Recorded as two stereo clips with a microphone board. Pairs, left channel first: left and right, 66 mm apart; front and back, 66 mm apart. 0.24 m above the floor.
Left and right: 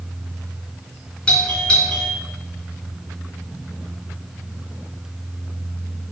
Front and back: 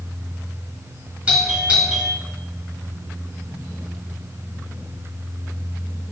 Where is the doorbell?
145° left, 1.4 m.